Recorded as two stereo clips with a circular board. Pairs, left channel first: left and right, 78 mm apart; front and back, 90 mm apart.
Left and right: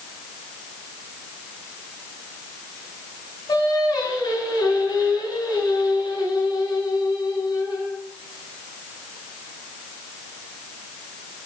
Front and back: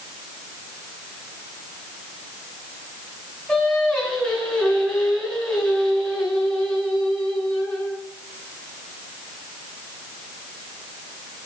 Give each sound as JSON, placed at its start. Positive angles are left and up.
{"t": 3.5, "sound": "singing", "azimuth_deg": 75, "distance_m": 3.0}